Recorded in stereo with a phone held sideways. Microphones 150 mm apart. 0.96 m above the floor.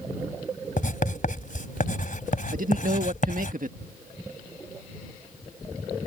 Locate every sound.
0.8 s writing: 65° left (ahead or behind)
2.5 s a man speaking: 65° right (ahead or behind)